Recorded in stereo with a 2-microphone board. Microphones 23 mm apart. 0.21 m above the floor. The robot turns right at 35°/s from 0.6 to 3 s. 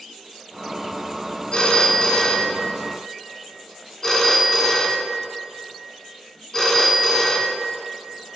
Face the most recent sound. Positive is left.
turn(degrees=30)  # may be behind; listen again after turning